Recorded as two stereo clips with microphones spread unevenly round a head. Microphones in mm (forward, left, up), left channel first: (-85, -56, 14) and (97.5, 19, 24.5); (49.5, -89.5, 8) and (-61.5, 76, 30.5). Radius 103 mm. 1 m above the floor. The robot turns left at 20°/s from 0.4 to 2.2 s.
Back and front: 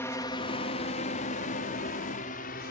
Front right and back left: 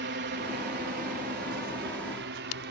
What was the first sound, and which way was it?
A drone, 130° left.